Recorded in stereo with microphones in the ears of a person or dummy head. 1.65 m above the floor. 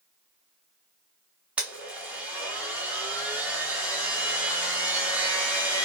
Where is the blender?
5° right (ahead or behind), 0.8 m.